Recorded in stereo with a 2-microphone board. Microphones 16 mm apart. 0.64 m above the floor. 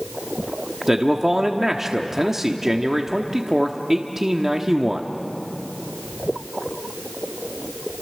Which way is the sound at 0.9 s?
25° right (ahead or behind).